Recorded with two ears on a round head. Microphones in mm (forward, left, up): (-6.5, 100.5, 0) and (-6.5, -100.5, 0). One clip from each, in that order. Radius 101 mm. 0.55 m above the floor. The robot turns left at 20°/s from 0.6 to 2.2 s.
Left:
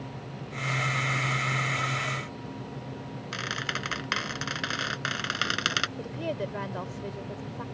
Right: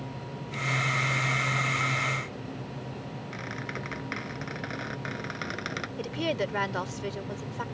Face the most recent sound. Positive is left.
turn(degrees=-60)  # may be behind; listen again after turning